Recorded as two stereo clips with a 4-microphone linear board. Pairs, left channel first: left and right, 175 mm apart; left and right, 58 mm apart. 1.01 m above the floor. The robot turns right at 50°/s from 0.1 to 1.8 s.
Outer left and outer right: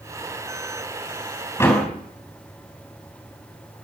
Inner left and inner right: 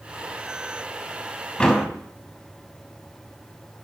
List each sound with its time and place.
1.6 s a door slam: 15° left (ahead or behind), 5.5 m; by 1.9 s 5° left (ahead or behind), 5.5 m